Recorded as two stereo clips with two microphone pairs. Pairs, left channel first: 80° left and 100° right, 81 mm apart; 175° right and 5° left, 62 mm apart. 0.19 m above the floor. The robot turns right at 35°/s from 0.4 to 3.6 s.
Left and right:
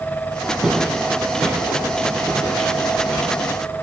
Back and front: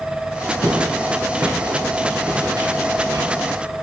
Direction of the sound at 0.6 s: 15° right.